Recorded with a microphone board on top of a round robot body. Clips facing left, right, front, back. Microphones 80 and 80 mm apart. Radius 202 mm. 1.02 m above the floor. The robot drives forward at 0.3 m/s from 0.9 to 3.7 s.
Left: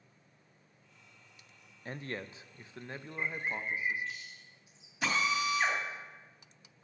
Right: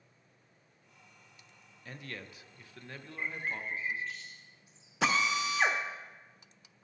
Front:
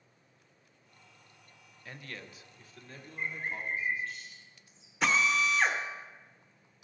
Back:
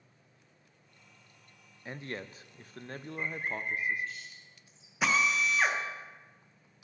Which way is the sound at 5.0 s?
95° right.